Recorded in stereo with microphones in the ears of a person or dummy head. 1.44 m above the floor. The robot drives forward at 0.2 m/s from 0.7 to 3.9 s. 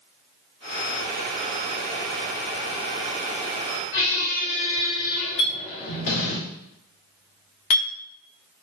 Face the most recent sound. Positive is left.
turn(degrees=35)  # may be behind; listen again after turning